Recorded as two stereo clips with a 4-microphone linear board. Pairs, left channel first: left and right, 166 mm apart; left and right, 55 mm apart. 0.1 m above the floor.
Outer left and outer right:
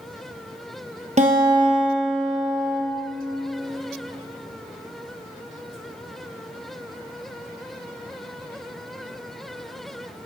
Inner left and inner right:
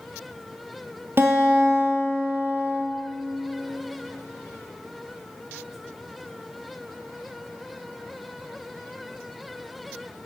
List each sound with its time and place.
1.2 s a guitar: 45° right (ahead or behind), 2 m